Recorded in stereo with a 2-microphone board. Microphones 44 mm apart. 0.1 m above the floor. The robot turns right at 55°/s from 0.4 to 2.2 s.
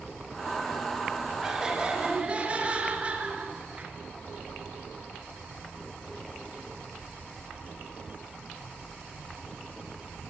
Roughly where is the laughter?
Behind.